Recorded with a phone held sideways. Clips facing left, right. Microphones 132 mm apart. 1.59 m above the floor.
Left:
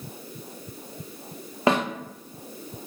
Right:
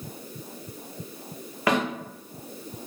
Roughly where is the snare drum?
Left.